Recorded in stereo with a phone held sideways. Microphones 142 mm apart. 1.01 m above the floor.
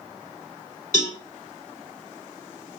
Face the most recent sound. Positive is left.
turn(degrees=80)